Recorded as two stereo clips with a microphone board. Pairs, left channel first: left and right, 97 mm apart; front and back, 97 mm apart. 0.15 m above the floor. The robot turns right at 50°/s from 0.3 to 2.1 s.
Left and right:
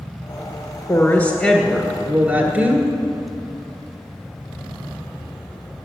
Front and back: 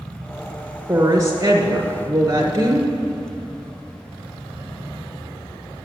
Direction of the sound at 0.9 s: 140° left.